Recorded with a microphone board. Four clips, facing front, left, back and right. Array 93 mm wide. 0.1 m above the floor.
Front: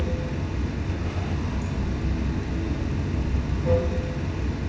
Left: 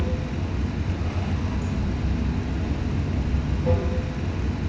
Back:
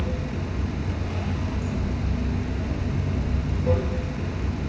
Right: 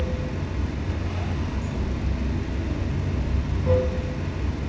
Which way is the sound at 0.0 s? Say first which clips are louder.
Left 1 dB, even; 75° left.